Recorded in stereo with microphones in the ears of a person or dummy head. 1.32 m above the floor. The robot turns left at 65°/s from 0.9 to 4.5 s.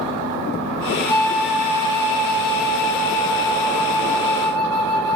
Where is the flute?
20° left, 0.6 m; by 5.2 s 160° left, 0.6 m.